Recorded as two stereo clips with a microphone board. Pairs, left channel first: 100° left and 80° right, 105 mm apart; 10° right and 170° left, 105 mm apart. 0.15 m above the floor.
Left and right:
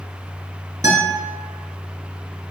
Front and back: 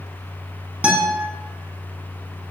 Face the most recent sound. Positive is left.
turn(degrees=-120)